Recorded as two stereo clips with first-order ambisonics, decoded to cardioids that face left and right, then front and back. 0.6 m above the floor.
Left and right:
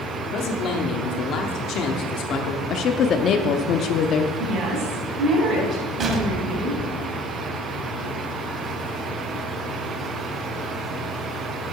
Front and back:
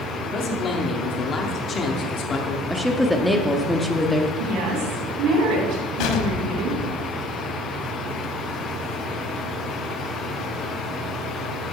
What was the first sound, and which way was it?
A man speaking, 55° left.